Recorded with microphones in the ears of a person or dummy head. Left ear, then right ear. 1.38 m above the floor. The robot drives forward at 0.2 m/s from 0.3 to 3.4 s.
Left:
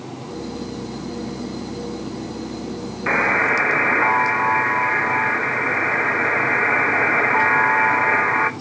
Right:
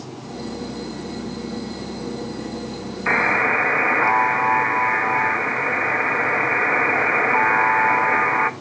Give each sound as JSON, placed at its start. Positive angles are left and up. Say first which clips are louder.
{"t": 3.1, "sound": "a buzzer", "louder": "even", "side_deg": -5, "distance_m": 0.6}